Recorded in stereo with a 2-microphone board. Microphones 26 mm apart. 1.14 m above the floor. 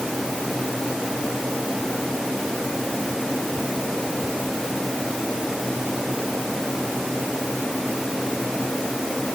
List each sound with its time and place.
Only background noise.